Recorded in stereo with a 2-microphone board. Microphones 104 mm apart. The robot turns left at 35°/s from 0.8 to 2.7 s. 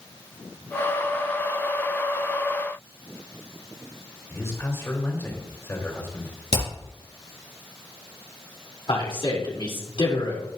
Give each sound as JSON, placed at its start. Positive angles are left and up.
{"t": 4.3, "sound": "a man speaking", "side_deg": 25, "distance_m": 3.5}
{"t": 6.5, "sound": "hammering", "side_deg": 80, "distance_m": 5.0}
{"t": 8.9, "sound": "a man speaking", "side_deg": 55, "distance_m": 3.0}